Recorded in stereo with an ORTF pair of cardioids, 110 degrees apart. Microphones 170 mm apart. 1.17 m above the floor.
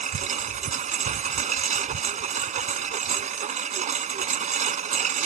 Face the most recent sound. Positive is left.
turn(degrees=-45)